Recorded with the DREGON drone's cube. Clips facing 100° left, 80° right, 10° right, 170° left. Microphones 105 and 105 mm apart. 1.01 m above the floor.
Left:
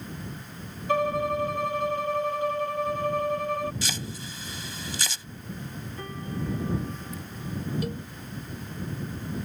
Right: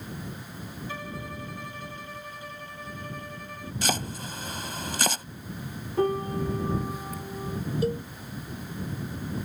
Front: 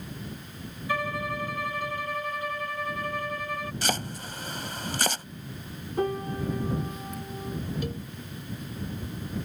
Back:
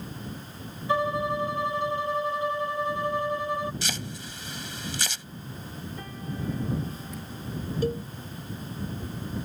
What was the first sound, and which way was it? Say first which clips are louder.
A violin: left 16 dB, back 5 dB; 110° left.